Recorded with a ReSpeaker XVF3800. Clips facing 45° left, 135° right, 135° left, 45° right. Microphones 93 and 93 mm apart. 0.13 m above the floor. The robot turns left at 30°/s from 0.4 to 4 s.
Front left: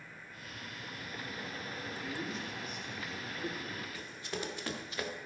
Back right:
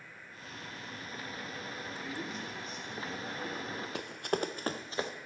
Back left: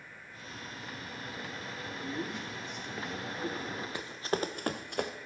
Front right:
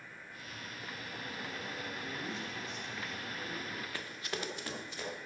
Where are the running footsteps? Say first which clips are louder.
Back right 8 dB, back left 11 dB; 150° right, 1.1 m; by 5.1 s 165° left, 1.7 m.